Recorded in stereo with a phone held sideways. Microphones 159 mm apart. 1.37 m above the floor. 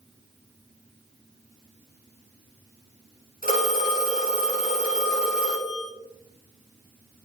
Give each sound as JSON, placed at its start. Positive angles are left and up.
{"t": 3.4, "sound": "a phone ringing", "side_deg": -65, "distance_m": 1.8}